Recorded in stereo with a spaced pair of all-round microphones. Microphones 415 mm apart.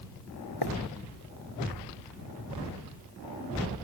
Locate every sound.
0.6 s writing: 70° left (ahead or behind)